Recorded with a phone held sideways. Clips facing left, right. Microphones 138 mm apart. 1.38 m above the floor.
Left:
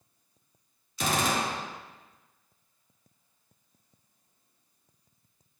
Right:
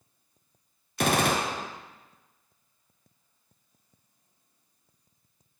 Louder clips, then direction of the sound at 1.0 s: Right 3 dB; 60° right (ahead or behind).